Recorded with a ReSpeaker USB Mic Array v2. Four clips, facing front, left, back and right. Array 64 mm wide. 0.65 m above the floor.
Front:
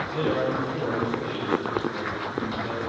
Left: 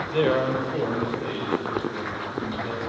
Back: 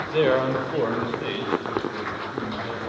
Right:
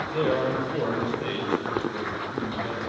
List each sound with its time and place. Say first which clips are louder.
0.1 s a man speaking: left 3 dB, back 6 dB; 155° left, 2.0 m; by 2.8 s 135° right, 4.5 m